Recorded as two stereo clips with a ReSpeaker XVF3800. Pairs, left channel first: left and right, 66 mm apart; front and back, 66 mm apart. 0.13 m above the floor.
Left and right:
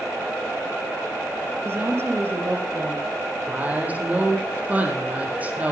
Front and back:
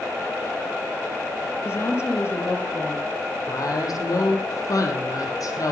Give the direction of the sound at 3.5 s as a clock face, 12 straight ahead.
1 o'clock.